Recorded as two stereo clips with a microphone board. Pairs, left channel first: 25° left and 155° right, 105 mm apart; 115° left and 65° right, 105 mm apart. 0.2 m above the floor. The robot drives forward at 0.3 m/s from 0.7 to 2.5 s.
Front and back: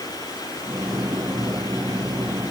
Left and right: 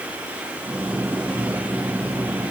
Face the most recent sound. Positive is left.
No sound to turn to.